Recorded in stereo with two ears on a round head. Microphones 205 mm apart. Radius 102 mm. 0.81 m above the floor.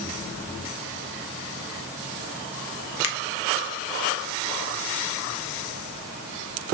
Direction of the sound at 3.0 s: 65° left (ahead or behind).